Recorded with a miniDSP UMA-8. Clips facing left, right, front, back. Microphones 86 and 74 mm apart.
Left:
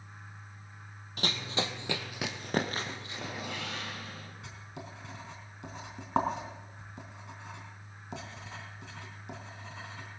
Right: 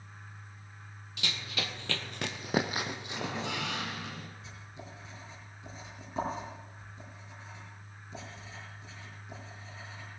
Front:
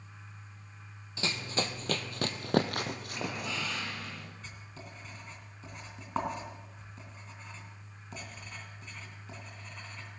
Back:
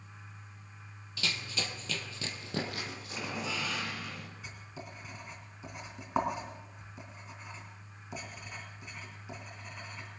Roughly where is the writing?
Left.